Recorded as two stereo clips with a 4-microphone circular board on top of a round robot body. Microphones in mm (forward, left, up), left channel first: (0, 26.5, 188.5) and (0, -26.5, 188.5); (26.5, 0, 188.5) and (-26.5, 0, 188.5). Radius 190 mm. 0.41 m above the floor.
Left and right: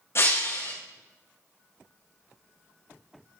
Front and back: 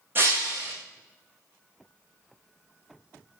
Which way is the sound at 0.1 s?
130° left.